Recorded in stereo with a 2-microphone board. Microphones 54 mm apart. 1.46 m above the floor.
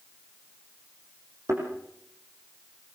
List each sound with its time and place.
1.5 s a thud: 70° right (ahead or behind), 7.5 m